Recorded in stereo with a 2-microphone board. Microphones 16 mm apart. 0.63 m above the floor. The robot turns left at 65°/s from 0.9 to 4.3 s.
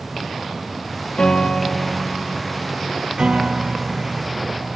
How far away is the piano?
About 1.4 m.